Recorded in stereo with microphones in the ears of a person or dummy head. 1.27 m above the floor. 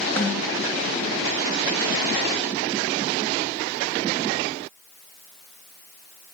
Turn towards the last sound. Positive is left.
turn(degrees=10)  # may be behind; listen again after turning